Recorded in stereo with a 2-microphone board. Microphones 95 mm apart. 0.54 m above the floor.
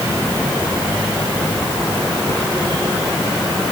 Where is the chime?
No chime in this recording.